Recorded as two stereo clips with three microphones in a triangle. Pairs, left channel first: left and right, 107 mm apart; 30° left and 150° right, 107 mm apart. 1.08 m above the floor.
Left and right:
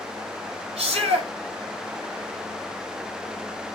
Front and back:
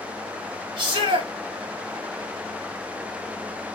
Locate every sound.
0.8 s a shout: 110° right, 4 m